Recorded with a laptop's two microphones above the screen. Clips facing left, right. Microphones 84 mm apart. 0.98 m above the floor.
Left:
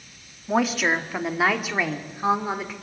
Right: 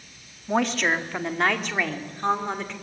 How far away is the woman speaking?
About 1.9 m.